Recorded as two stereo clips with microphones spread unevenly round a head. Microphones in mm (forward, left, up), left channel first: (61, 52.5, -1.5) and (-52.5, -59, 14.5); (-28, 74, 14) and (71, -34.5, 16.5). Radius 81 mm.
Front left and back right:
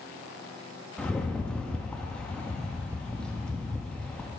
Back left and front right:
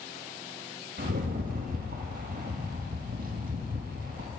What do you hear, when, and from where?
1.0 s a rattle: 35° right, 1.5 m